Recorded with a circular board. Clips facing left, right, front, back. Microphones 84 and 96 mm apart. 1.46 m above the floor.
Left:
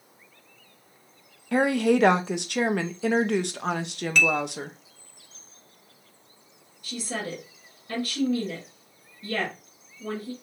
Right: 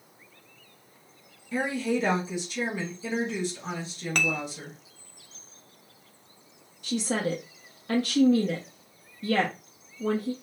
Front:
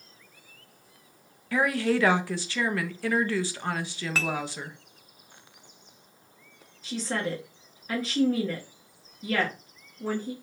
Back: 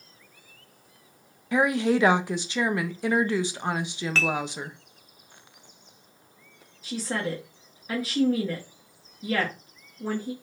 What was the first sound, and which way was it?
A woman speaking, 110° left.